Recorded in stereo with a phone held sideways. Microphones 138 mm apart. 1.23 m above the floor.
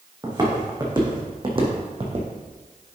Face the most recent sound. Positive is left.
turn(degrees=-40)  # may be behind; listen again after turning